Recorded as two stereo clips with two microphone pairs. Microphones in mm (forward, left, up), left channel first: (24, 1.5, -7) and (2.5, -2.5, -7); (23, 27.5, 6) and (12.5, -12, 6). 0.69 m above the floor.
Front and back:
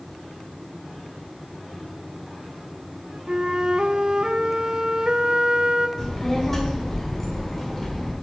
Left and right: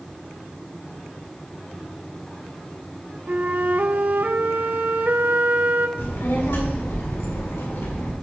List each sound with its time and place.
3.3 s a flute: 125° right, 0.5 m
6.0 s a child speaking: 85° left, 1.6 m